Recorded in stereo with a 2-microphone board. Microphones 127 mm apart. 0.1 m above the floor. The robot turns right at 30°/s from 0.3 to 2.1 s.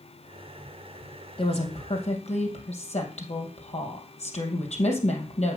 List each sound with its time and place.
1.4 s a woman speaking: 45° left (ahead or behind), 3 m; by 5.6 s 65° left (ahead or behind), 3 m